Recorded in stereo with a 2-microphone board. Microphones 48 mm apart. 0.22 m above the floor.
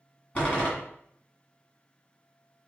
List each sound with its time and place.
0.3 s a door slam: 30° left (ahead or behind), 1.6 m